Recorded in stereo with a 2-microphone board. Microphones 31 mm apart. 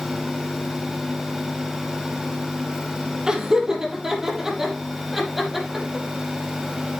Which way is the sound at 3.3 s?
20° right (ahead or behind).